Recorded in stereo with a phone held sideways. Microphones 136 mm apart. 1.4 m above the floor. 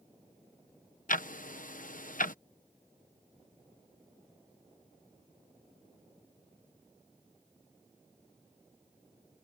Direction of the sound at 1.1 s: 75° left (ahead or behind).